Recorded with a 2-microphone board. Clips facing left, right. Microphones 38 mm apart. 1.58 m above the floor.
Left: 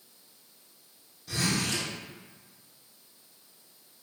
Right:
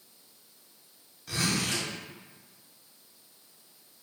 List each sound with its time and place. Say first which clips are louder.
1.3 s a zipper: even; 70° right (ahead or behind), 1.6 m